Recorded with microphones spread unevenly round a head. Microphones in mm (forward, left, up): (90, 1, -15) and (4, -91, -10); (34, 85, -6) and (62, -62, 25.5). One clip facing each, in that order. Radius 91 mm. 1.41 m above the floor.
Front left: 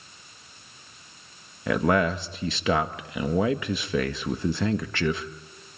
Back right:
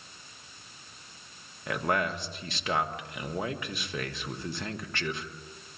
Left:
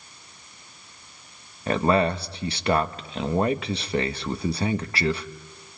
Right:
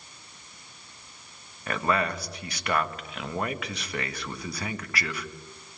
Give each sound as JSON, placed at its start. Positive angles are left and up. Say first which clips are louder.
{"t": 1.7, "sound": "a man speaking", "louder": "front left 7 dB, left 6 dB", "azimuth_deg": 35, "distance_m": 1.6}